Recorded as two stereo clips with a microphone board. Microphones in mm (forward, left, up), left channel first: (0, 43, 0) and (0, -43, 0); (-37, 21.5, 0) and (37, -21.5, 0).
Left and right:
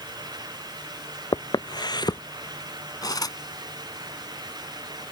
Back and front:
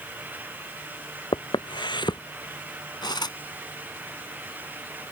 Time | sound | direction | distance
1.3 | footsteps | 120° left | ?
3.0 | cutlery clinking | 125° left | ?